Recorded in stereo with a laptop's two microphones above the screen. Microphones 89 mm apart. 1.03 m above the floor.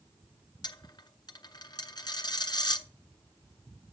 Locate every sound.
0.6 s a dropped coin: 50° left (ahead or behind), 0.6 m